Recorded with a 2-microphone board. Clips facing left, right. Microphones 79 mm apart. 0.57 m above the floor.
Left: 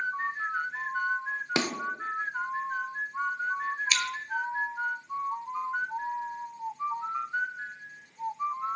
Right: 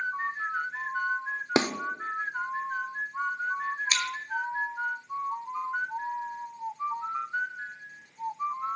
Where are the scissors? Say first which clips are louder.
Left 1 dB; 35° right (ahead or behind), 2.0 m.